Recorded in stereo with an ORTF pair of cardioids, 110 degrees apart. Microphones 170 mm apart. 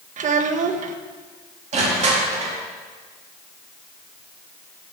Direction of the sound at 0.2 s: 50° right.